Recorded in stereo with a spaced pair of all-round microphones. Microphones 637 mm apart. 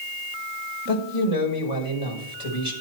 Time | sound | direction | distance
0.9 | a man speaking | 60° left (ahead or behind) | 5.5 m